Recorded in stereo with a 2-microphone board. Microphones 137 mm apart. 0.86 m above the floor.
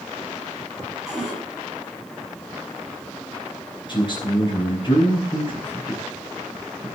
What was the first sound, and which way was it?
A cupboard door, 5° right (ahead or behind).